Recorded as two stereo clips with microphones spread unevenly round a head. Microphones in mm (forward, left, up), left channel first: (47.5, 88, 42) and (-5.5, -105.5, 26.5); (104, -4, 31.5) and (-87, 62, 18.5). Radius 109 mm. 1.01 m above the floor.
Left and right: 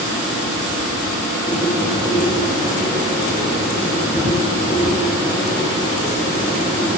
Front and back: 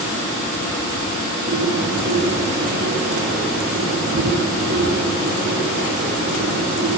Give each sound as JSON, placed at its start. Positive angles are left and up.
{"t": 1.5, "sound": "a bird", "azimuth_deg": 145, "distance_m": 5.5}